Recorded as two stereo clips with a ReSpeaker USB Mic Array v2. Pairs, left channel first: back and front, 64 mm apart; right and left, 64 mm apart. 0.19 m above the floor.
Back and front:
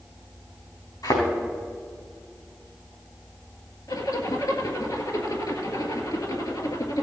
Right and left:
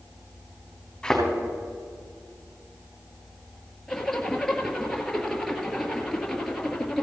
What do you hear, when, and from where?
1.0 s a thud: 170° right, 4 m
3.9 s a zipper: 170° right, 1.7 m